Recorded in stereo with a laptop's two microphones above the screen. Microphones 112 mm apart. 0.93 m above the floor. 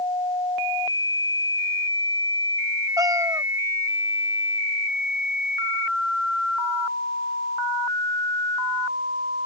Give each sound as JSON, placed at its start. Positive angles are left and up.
{"t": 3.0, "sound": "a cat meowing", "side_deg": -30}